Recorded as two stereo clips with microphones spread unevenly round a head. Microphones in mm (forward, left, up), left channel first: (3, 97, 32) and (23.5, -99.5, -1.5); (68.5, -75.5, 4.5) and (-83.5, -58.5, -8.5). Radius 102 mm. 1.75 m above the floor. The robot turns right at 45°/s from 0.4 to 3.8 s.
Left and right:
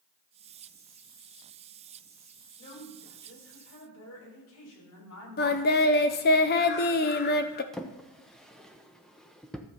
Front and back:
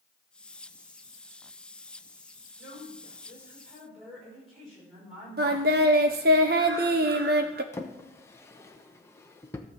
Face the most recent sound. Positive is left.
turn(degrees=35)